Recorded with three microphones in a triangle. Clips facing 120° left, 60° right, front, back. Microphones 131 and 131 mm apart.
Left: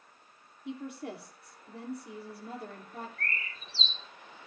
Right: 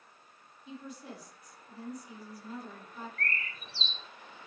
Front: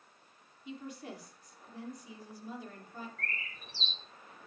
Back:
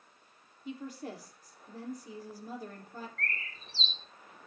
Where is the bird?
75° right, 3 m.